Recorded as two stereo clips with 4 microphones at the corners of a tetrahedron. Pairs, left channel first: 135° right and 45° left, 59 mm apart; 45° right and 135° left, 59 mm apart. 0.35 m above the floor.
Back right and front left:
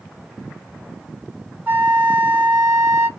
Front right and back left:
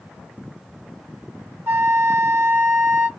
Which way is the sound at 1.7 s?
90° left.